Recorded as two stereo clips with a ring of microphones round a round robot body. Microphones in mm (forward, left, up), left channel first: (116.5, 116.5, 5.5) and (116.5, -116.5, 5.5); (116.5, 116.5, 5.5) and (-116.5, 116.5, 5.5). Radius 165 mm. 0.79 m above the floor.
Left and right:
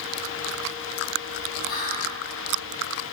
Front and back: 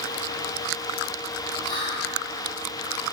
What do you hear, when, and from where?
1.6 s whispering: 65° left, 0.6 m